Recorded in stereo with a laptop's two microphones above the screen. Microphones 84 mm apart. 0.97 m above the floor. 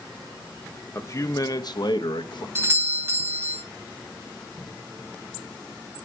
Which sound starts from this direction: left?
A man speaking, at 0.9 s.